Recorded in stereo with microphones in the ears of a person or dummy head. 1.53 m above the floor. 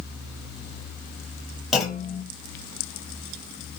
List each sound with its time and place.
1.7 s a clunk: centre (ahead or behind), 0.6 m